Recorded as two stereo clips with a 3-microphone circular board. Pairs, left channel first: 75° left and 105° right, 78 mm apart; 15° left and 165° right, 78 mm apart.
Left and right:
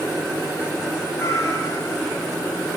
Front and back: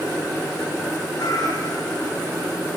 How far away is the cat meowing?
About 4.5 m.